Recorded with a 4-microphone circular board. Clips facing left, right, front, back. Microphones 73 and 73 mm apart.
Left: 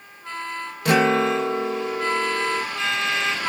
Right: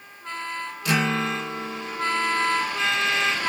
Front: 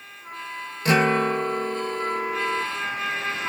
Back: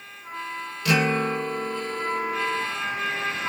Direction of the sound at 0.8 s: 55° left.